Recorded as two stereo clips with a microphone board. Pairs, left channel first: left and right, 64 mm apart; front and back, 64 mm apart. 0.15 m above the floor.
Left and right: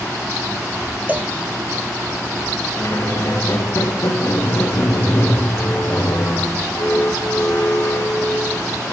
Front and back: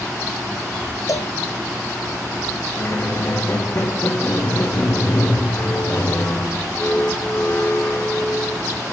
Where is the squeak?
50° left, 2.0 m.